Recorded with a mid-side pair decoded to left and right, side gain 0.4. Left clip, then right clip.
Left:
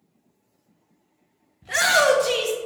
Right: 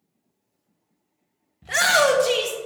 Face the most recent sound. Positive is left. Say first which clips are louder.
# even
turn(degrees=-15)